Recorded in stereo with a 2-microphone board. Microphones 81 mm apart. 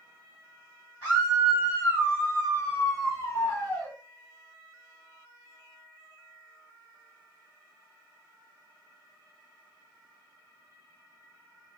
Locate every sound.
1.0 s a scream: 25° left (ahead or behind), 2.5 m; by 3.9 s 20° left (ahead or behind), 1.4 m